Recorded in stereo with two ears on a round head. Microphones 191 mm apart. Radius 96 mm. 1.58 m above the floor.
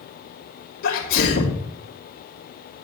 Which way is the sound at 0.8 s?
55° left (ahead or behind).